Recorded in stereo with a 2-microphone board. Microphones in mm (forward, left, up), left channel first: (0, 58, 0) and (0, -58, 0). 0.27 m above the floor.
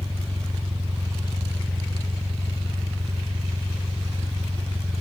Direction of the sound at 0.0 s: 5° right (ahead or behind).